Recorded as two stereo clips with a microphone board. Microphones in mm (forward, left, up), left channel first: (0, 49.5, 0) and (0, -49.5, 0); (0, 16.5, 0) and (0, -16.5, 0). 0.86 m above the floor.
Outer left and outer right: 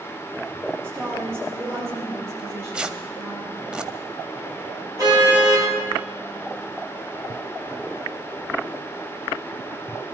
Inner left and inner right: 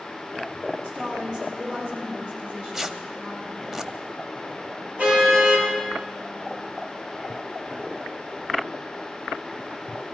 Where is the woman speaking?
25° right (ahead or behind), 8 m; by 3.4 s 35° right (ahead or behind), 9.5 m.